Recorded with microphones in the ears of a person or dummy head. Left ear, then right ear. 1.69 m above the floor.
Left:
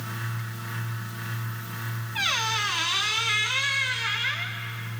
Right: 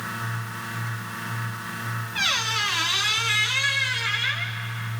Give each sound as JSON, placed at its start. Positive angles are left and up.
{"t": 2.1, "sound": "a squeak", "side_deg": 0, "distance_m": 0.6}